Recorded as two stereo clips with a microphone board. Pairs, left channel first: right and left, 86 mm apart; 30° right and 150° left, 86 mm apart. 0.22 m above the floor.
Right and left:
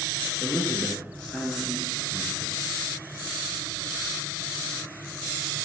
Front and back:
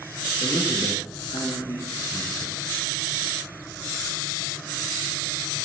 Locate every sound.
0.4 s a man speaking: 15° right, 3.5 m; by 2.6 s straight ahead, 2.5 m